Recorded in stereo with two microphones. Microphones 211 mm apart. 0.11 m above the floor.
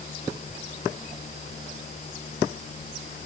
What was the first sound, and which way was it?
Only background noise.